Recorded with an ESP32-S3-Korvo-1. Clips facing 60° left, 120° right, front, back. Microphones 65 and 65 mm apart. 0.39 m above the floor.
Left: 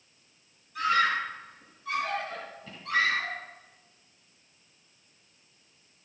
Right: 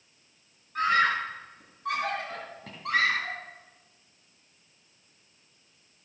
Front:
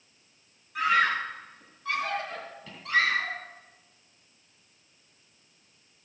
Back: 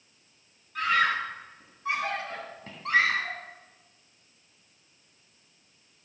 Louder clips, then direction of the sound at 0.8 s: Right 1 dB, front 1 dB; 80° right.